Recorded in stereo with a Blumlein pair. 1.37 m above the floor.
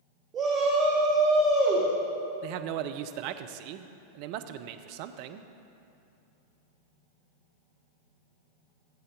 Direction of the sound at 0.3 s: 25° right.